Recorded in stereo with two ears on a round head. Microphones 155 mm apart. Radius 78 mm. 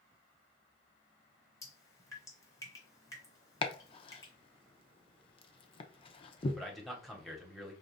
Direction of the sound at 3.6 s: 30° left (ahead or behind).